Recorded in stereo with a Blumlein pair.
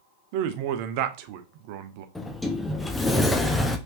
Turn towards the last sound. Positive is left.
turn(degrees=5)